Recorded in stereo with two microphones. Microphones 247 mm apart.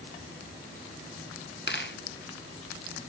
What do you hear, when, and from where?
1.7 s a dropped coin: 45° left (ahead or behind), 1.5 m